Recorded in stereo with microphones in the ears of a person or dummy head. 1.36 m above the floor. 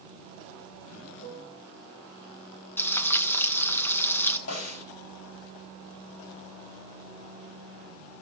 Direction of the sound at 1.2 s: 35° left (ahead or behind).